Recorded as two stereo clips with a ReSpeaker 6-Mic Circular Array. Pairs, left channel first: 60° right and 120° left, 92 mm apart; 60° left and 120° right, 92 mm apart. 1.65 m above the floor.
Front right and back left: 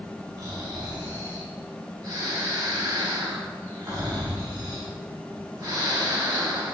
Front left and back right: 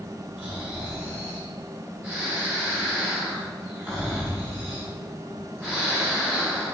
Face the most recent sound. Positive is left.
turn(degrees=170)